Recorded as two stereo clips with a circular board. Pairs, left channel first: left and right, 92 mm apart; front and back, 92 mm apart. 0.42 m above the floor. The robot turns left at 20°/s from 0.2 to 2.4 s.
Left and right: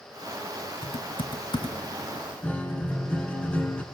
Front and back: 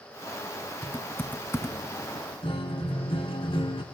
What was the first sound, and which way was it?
Typing on a keyboard, 80° left.